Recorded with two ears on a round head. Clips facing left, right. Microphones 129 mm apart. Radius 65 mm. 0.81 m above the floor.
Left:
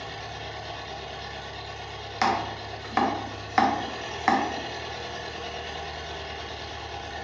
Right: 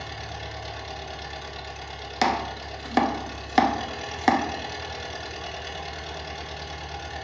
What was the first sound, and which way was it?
An engine running, 60° right (ahead or behind).